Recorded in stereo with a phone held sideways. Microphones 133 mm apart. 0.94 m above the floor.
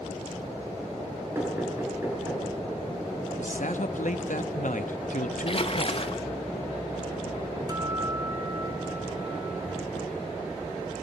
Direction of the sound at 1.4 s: 20° right (ahead or behind).